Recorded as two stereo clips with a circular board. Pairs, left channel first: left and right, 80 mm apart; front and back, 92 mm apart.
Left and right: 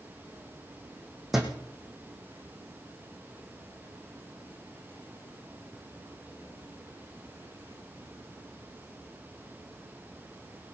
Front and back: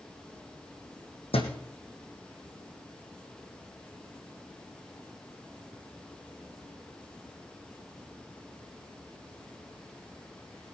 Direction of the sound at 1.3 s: 5° right.